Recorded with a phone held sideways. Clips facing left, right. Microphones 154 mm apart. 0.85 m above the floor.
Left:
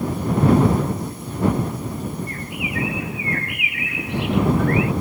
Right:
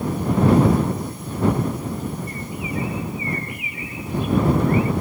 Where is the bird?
80° left.